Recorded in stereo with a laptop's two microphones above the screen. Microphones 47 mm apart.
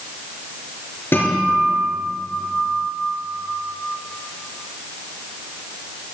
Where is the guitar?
55° left (ahead or behind), 4 m.